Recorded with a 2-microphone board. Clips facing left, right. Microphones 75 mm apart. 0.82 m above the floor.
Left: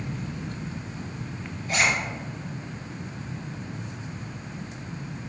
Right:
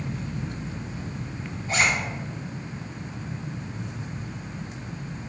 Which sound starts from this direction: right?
A zipper, at 1.7 s.